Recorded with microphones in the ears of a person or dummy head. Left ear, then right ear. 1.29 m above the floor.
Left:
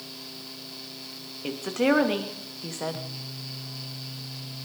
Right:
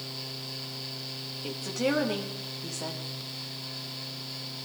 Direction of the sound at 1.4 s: 15° left (ahead or behind).